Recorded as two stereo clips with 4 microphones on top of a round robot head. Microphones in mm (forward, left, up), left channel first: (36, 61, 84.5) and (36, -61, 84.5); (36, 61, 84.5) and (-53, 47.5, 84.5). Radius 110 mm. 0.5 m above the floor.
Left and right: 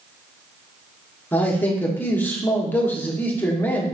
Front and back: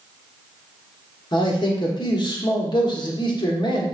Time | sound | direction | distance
1.3 | a man speaking | 15° left | 1.1 m